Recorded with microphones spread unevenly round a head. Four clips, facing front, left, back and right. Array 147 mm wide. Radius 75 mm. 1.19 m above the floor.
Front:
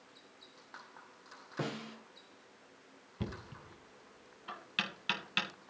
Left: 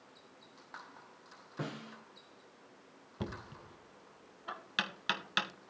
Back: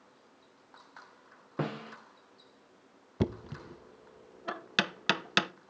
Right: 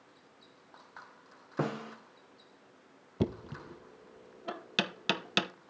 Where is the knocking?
135° right, 0.6 m.